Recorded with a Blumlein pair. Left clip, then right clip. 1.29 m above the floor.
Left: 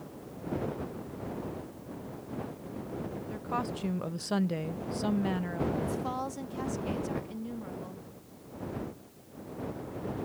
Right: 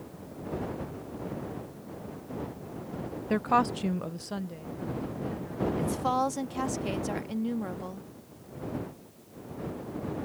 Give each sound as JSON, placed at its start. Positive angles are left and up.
{"t": 3.3, "sound": "a woman speaking", "azimuth_deg": -35}
{"t": 5.8, "sound": "a woman speaking", "azimuth_deg": -20}